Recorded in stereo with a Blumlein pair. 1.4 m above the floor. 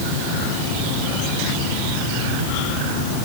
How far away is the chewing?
No chewing in this recording.